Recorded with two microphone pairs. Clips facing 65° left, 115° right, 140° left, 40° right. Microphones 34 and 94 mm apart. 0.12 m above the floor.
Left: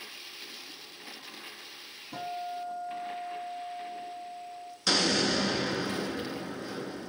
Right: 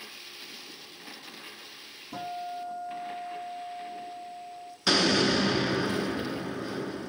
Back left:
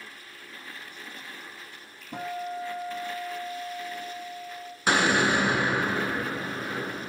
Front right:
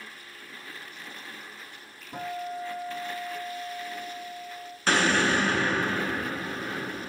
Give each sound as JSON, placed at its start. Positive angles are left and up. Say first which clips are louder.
{"t": 2.1, "sound": "a guitar", "louder": "even, back left 1 dB", "azimuth_deg": 155, "distance_m": 2.5}
{"t": 4.9, "sound": "an explosion", "louder": "right 3 dB, back left 1 dB", "azimuth_deg": -160, "distance_m": 0.6}